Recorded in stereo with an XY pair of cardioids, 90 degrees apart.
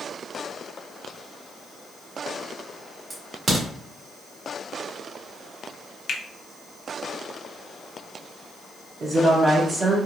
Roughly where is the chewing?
No chewing in this recording.